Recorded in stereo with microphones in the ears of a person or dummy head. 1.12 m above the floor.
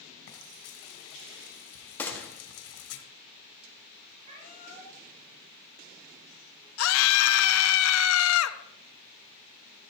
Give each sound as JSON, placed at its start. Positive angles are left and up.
{"t": 0.3, "sound": "frying", "side_deg": 70, "distance_m": 2.0}
{"t": 2.0, "sound": "a gunshot", "side_deg": 15, "distance_m": 1.6}
{"t": 4.2, "sound": "a cat meowing", "side_deg": -40, "distance_m": 5.0}
{"t": 6.8, "sound": "a scream", "side_deg": 80, "distance_m": 1.0}